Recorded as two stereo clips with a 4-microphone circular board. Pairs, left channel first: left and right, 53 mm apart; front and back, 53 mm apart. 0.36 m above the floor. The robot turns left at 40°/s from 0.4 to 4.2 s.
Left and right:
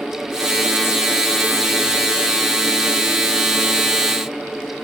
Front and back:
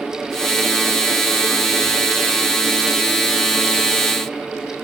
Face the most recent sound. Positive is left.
No sound to turn to.